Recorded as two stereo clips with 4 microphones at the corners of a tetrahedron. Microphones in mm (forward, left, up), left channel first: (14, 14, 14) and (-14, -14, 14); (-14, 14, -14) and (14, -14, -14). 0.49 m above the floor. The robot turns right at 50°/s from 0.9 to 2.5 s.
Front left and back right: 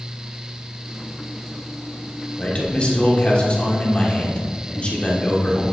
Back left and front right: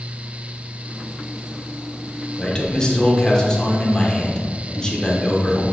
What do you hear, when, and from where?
2.4 s a man speaking: 70° left, 1.2 m; by 5.6 s 80° left, 1.2 m